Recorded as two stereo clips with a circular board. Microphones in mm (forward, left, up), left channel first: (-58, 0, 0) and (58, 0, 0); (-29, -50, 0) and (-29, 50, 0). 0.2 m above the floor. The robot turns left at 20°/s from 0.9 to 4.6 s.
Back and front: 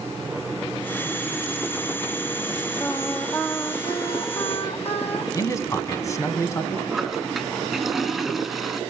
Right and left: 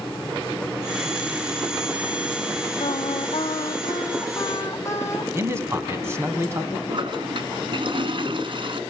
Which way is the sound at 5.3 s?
135° left.